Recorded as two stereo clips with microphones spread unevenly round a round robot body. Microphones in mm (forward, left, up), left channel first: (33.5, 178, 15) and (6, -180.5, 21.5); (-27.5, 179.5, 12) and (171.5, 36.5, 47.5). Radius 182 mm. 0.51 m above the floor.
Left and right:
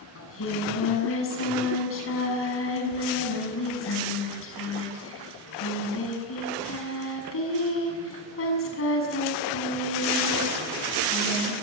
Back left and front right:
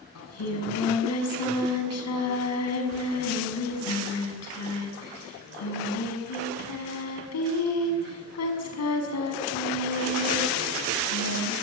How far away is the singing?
About 5.5 m.